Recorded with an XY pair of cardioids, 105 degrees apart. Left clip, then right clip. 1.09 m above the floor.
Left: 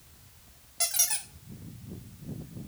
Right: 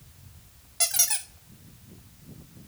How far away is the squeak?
About 0.9 m.